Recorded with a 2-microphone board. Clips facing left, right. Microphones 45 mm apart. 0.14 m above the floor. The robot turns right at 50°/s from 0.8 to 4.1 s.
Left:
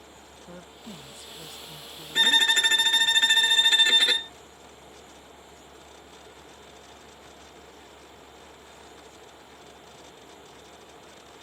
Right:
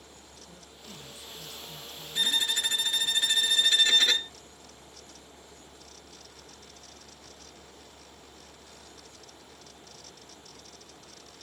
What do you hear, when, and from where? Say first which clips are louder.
0.5 s a woman speaking: left 7 dB; 60° left; by 3.1 s 175° left
2.1 s a violin: left 8 dB; 65° left; by 4.3 s 160° left